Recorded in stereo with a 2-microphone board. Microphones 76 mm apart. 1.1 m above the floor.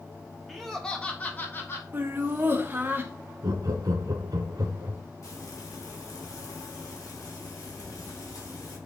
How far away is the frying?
About 3 m.